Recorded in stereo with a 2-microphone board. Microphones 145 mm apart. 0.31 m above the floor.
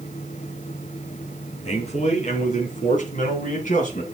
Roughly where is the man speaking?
Left.